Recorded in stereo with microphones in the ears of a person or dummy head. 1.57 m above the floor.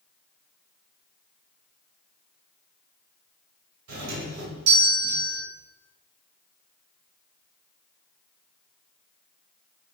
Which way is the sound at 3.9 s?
80° right.